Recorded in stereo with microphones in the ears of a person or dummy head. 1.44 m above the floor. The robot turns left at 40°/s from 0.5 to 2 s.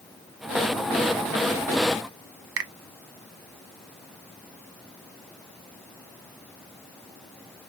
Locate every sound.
2.6 s a finger snap: 70° right (ahead or behind), 1.0 m